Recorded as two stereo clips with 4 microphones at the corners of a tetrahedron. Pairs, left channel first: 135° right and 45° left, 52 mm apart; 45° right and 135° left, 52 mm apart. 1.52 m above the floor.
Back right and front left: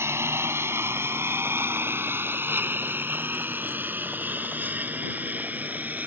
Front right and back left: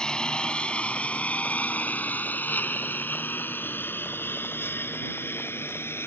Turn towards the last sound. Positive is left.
turn(degrees=-10)